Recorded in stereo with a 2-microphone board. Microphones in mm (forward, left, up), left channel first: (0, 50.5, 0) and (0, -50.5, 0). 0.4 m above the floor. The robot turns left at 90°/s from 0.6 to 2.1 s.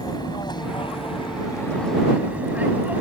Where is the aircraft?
40° left (ahead or behind); by 3.0 s 15° right (ahead or behind).